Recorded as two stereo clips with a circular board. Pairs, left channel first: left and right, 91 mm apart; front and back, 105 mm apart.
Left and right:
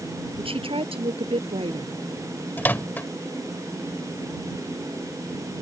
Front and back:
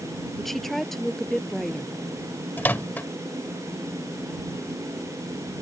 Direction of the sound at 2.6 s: 50° left.